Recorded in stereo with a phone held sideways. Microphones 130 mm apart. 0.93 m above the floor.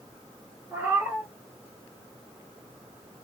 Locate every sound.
0.7 s a cat meowing: 15° right (ahead or behind), 1.8 m